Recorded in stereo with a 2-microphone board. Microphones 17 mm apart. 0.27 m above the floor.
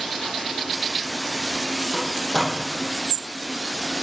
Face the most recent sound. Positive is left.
turn(degrees=30)  # may be behind; listen again after turning